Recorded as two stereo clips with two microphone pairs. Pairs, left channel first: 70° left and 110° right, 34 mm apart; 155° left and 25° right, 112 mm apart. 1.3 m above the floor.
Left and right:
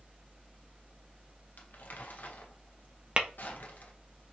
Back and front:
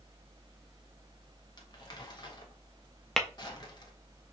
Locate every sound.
1.6 s crumpling: 100° left, 0.9 m
3.2 s tapping: 115° right, 0.5 m